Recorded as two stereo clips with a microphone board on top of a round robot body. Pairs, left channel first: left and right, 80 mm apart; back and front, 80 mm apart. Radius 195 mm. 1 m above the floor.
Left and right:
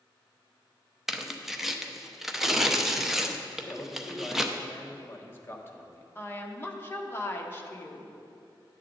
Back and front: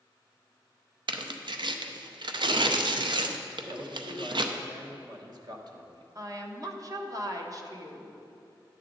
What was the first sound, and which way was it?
Tearing paper, 5° right.